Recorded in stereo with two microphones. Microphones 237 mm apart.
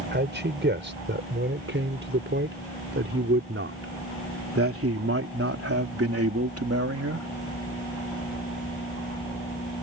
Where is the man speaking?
50° right (ahead or behind); by 7.3 s 90° right.